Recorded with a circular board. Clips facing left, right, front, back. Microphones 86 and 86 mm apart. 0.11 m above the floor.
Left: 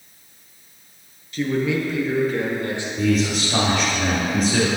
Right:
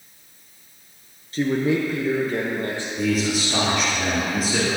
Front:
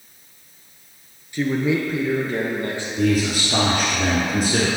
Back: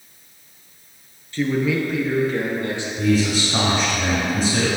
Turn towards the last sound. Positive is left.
turn(degrees=-5)